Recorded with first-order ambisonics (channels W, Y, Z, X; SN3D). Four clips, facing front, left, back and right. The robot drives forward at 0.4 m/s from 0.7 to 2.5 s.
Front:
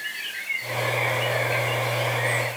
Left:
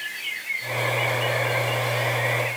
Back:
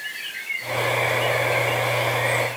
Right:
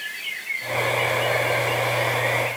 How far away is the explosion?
No explosion in this recording.